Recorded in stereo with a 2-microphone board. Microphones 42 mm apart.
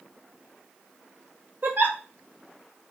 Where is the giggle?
50° right (ahead or behind), 1.0 m.